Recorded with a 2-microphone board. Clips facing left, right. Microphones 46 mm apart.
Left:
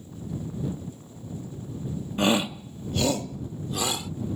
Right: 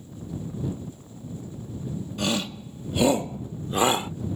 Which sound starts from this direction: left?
A shout, at 2.2 s.